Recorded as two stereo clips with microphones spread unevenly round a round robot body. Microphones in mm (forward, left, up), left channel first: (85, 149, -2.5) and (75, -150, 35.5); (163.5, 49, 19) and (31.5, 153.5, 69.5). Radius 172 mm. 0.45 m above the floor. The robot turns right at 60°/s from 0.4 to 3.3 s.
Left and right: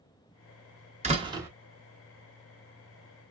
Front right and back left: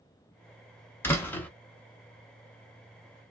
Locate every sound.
1.0 s a door slam: 30° right, 0.9 m; by 1.5 s 5° right, 0.9 m